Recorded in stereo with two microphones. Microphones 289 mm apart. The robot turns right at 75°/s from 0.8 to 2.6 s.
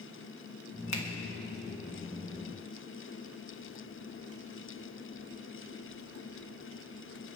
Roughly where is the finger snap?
Left.